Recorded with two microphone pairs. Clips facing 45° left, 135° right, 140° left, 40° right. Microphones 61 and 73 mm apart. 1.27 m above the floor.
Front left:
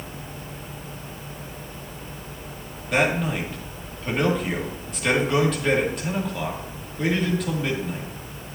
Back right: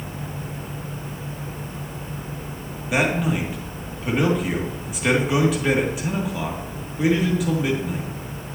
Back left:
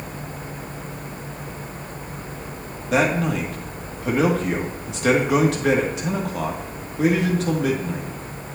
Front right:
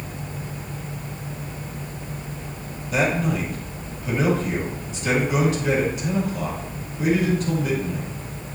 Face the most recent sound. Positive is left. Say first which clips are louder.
# back right 1 dB, back left 2 dB
turn(degrees=145)